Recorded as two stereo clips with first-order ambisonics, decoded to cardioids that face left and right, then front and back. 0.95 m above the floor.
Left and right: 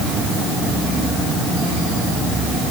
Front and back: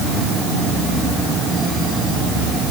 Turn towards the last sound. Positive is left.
No sound to turn to.